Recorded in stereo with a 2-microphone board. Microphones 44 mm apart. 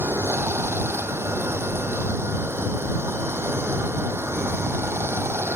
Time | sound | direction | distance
0.0 | running water | 65° right (ahead or behind) | ?